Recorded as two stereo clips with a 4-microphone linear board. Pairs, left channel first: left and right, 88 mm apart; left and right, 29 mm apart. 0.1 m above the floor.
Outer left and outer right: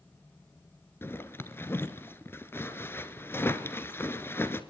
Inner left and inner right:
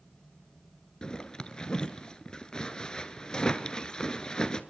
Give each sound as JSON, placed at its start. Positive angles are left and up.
{"t": 1.0, "sound": "a zipper", "side_deg": 25, "distance_m": 1.2}